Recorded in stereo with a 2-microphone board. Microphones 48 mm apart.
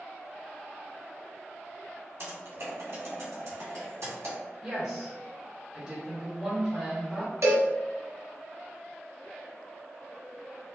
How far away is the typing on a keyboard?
About 1.7 m.